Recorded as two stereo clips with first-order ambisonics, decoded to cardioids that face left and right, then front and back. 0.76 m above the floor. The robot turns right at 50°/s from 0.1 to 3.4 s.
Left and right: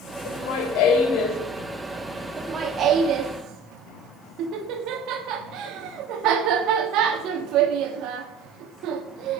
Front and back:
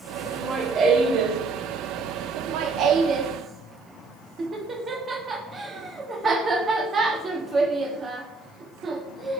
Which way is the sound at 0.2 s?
80° left.